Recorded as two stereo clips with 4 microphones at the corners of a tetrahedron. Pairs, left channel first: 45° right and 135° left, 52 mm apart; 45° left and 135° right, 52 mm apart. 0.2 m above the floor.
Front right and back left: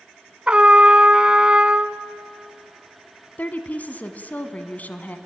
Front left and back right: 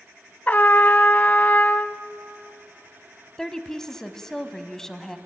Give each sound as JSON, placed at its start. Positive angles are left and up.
{"t": 0.5, "sound": "a trumpet", "azimuth_deg": 75, "distance_m": 0.8}
{"t": 3.4, "sound": "a woman speaking", "azimuth_deg": -30, "distance_m": 1.3}